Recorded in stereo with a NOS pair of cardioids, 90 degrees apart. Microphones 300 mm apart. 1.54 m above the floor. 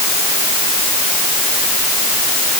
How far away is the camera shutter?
I don't hear a camera shutter.